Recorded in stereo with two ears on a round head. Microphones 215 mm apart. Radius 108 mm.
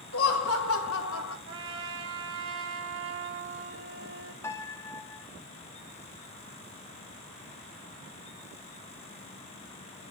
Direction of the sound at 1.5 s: 60° right (ahead or behind).